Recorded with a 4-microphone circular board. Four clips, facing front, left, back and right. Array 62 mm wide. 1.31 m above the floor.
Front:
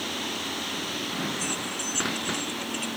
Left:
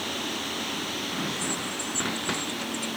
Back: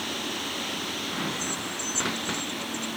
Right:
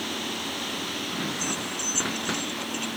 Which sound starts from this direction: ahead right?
Keys jangling, at 1.4 s.